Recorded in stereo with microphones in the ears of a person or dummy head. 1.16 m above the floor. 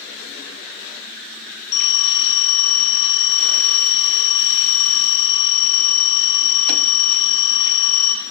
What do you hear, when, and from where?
1.7 s a phone ringing: 60° left (ahead or behind), 6.5 m